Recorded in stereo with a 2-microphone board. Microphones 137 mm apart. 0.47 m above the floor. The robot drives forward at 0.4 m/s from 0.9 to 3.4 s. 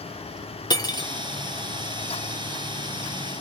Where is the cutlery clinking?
25° left (ahead or behind), 0.6 m; by 1.1 s 30° left (ahead or behind), 0.5 m.